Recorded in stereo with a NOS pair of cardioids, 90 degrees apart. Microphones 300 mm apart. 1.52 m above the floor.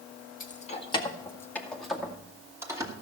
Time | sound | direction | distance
0.4 | keys jangling | 30° left | 1.7 m